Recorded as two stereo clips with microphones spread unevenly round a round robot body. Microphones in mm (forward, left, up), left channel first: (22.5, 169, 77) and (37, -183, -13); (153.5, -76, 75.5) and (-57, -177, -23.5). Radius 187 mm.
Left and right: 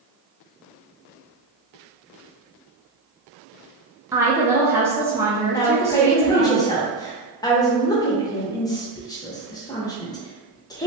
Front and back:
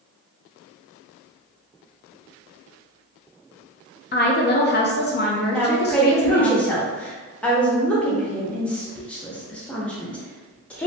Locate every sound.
4.1 s a woman speaking: 35° right, 0.6 m
5.5 s a woman speaking: 165° right, 0.6 m